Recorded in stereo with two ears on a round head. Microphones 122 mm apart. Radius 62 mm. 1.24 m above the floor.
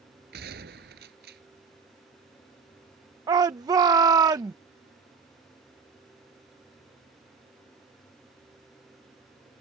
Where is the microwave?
No microwave in this recording.